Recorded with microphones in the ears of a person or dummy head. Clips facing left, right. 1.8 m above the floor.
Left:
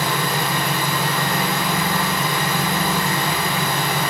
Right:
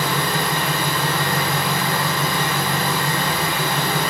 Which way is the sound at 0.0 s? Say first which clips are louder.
Even; 10° left (ahead or behind).